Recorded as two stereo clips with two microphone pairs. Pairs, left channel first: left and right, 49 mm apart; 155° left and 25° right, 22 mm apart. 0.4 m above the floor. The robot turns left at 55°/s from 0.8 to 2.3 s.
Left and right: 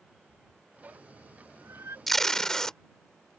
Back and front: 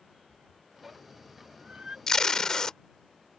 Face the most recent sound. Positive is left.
turn(degrees=160)